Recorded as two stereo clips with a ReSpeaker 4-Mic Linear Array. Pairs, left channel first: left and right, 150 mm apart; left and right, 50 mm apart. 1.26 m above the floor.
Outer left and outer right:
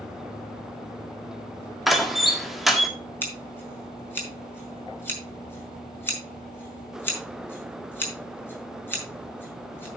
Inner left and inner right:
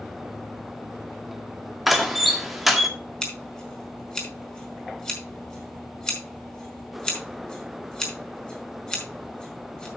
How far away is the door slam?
About 1.7 m.